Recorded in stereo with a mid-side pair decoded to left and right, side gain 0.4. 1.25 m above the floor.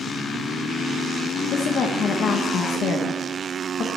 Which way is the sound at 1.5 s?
65° left.